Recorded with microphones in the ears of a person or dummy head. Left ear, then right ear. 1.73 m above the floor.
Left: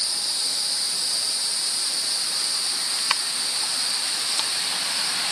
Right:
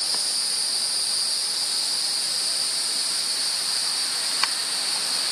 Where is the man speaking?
No man speaking in this recording.